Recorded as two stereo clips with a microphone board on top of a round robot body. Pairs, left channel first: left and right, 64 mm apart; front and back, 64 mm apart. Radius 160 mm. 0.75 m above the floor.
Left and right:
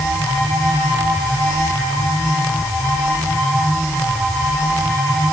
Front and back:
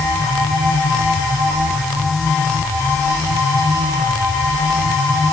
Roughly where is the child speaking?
No child speaking in this recording.